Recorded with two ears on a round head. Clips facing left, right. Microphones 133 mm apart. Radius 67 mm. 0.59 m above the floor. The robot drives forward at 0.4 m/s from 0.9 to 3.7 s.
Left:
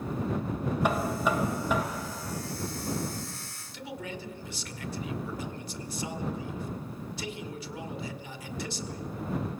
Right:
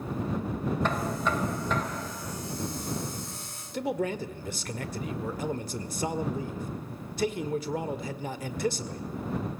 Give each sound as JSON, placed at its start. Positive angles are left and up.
{"t": 0.8, "sound": "knocking", "side_deg": 10, "distance_m": 2.0}
{"t": 3.7, "sound": "a man speaking", "side_deg": -40, "distance_m": 1.7}